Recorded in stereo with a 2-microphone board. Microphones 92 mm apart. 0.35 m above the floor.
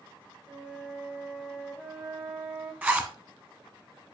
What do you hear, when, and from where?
0.5 s a flute: 15° right (ahead or behind), 1.4 m
2.8 s a zipper: 20° right (ahead or behind), 1.1 m